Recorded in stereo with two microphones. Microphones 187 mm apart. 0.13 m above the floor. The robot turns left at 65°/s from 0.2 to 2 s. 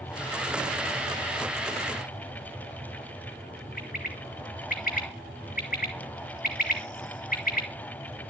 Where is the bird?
45° left (ahead or behind), 2.5 m.